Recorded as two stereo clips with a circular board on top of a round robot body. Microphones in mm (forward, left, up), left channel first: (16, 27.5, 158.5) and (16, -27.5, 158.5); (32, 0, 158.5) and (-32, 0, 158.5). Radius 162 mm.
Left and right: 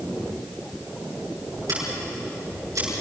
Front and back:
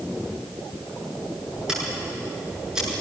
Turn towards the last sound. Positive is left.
turn(degrees=-100)